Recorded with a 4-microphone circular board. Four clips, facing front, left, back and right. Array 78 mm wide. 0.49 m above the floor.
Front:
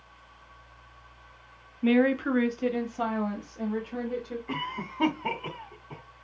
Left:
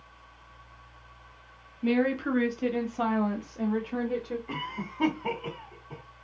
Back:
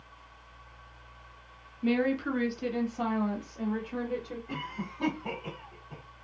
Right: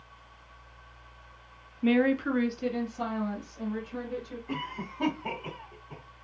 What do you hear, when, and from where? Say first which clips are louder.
1.8 s a woman speaking: right 1 dB, front 5 dB; 40° right, 0.8 m; by 4.4 s 95° left, 1.5 m
4.5 s a cough: even, front 4 dB; 20° left, 1.4 m